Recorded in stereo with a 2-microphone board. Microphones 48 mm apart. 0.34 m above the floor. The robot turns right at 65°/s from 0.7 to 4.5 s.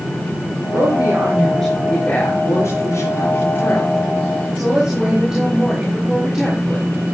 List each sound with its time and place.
0.7 s a woman speaking: 60° right, 6 m; by 6.9 s 175° right, 6 m